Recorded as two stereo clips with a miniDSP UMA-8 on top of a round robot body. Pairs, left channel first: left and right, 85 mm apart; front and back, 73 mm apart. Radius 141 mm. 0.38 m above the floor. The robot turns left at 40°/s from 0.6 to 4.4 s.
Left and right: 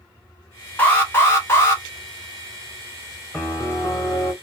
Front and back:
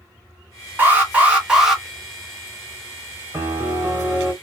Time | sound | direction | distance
0.8 | an alarm | 140° left | 1.6 m
3.3 | a piano | 155° left | 1.3 m